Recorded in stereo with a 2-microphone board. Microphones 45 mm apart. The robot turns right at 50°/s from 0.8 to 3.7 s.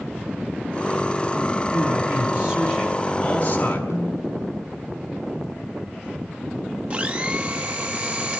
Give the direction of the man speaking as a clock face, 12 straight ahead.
2 o'clock.